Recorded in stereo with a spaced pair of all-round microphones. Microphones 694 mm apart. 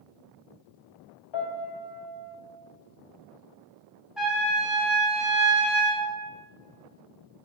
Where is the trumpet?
Centre (ahead or behind), 0.6 m.